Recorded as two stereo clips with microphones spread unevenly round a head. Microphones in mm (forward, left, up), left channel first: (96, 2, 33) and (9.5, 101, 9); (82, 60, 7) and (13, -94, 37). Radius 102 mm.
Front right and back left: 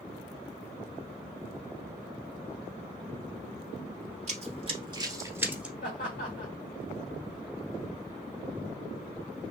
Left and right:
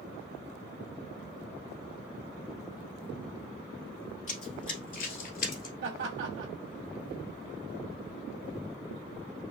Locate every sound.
4.3 s running footsteps: 120° left, 1.6 m; by 5.7 s 40° left, 1.5 m
5.8 s laughter: 105° right, 1.2 m